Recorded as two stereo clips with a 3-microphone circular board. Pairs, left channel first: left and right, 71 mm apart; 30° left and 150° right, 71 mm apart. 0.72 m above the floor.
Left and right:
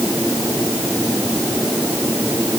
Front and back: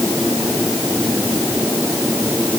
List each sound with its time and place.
Only background noise.